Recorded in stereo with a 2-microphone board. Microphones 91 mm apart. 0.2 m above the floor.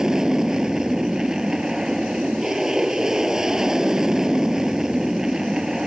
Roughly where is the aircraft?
Centre.